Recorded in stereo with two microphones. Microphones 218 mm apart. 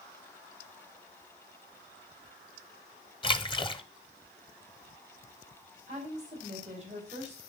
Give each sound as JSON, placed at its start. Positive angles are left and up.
{"t": 3.2, "sound": "a splash", "side_deg": 25, "distance_m": 0.6}
{"t": 5.9, "sound": "a woman speaking", "side_deg": -30, "distance_m": 3.0}